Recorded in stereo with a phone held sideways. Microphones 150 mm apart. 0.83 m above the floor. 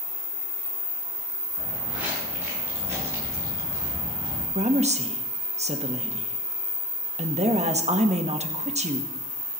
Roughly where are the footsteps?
Centre.